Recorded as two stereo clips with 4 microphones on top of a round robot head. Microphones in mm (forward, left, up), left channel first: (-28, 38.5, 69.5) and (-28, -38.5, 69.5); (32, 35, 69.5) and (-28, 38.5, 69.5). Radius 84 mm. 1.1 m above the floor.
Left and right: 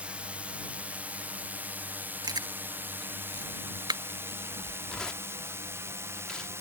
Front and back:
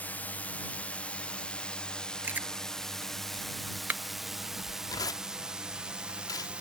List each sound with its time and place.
0.0 s a drone: 30° right; by 6.6 s 120° right
2.2 s chewing: 120° right
4.9 s tearing paper: 10° left